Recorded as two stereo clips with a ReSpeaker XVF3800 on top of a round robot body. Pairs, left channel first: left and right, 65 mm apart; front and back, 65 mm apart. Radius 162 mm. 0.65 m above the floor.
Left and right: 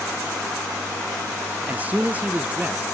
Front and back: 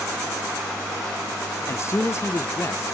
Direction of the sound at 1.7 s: 30° right.